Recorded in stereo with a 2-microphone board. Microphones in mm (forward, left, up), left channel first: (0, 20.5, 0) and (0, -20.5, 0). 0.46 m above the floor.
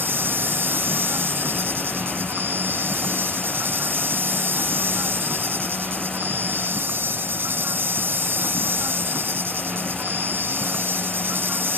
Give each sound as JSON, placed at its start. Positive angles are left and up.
{"t": 0.0, "sound": "an insect", "side_deg": -65}